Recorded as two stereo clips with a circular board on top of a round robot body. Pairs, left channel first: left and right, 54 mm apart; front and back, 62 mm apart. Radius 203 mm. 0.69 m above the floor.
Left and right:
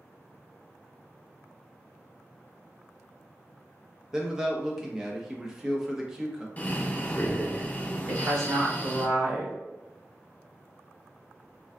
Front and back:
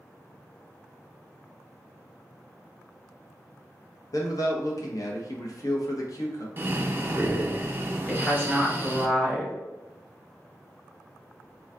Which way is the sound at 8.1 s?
70° right.